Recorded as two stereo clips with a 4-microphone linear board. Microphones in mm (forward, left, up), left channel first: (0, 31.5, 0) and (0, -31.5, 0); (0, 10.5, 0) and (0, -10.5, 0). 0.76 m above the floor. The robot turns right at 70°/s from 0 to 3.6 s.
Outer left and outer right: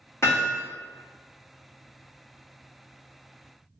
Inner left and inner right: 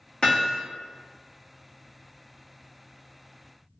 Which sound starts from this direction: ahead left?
Hammering, at 0.2 s.